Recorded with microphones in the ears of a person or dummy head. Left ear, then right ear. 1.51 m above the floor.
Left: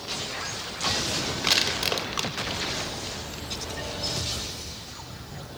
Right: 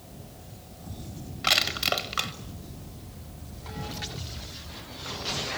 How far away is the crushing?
About 1.3 m.